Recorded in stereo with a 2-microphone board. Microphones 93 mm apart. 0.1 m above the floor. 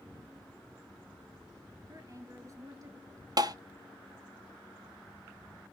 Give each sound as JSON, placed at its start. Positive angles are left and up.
{"t": 1.9, "sound": "a woman speaking", "side_deg": -35, "distance_m": 1.3}
{"t": 3.4, "sound": "tapping", "side_deg": -45, "distance_m": 0.5}